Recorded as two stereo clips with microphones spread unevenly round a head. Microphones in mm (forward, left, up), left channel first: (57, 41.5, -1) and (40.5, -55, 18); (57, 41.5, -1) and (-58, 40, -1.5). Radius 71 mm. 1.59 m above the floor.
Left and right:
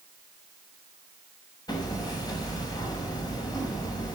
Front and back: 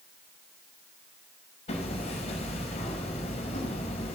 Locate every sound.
1.7 s hammering: 30° left, 6 m